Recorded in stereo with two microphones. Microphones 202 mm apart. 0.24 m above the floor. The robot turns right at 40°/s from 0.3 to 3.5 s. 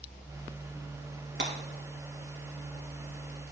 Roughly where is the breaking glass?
Right.